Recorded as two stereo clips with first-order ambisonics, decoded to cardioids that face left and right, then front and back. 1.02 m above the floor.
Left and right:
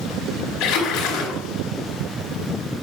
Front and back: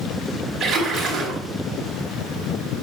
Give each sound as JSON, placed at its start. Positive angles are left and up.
{"t": 0.6, "sound": "a splash", "azimuth_deg": 110, "distance_m": 3.5}